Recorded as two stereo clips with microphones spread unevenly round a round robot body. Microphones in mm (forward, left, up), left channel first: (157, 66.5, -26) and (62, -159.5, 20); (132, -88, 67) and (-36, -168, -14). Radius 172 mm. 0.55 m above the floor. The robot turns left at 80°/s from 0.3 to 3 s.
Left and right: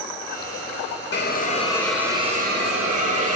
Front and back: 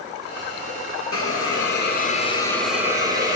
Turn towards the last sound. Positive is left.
turn(degrees=-105)